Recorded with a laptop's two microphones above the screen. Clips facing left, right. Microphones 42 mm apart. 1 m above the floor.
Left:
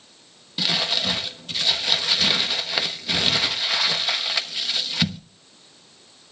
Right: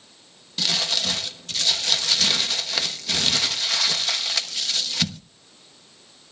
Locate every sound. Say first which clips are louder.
0.6 s crumpling: left 1 dB; 10° left (ahead or behind), 1.0 m